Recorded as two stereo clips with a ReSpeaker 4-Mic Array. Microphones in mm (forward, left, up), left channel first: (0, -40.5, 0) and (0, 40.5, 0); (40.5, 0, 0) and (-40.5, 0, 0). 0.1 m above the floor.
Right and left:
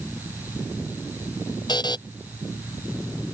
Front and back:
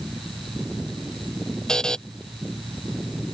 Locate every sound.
1.7 s a buzzer: 80° right